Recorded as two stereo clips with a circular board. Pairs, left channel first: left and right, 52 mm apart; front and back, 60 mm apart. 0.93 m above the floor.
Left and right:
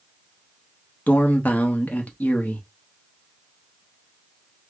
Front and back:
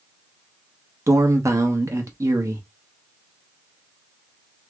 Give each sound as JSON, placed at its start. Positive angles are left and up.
{"t": 1.1, "sound": "a man speaking", "azimuth_deg": 150, "distance_m": 0.8}